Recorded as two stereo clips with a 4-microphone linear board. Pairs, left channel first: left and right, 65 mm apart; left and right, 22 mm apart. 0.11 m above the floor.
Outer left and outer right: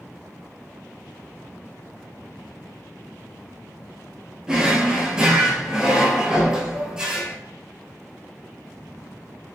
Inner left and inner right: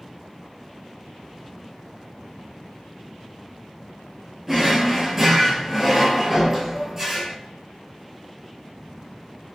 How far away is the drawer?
About 0.7 m.